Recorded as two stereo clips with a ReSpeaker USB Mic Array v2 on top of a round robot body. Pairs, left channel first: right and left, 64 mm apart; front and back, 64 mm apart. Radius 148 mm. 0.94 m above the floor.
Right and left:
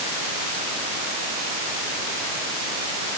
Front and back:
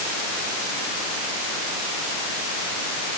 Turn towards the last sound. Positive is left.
No sound to turn to.